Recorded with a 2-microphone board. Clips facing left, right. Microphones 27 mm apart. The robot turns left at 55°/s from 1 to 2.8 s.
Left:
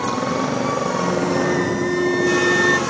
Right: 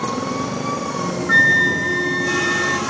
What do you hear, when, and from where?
0.0 s a motorcycle: 155° left; by 2.9 s 55° left
1.3 s a flute: 120° right; by 2.8 s 160° left